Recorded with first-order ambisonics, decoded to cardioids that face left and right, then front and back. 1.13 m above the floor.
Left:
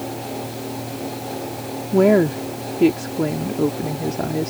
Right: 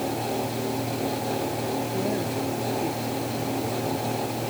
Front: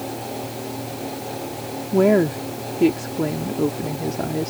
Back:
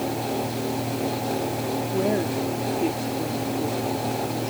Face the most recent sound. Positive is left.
turn(degrees=60)